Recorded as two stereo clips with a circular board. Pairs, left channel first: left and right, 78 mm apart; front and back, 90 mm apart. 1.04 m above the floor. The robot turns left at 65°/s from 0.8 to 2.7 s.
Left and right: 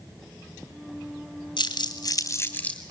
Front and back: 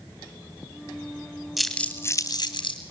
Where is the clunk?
I don't hear a clunk.